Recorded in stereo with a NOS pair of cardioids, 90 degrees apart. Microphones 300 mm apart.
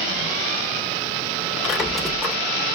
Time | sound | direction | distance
1.6 | a squeak | straight ahead | 0.7 m